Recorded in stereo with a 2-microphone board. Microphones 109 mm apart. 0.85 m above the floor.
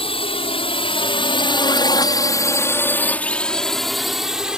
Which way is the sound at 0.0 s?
60° left (ahead or behind).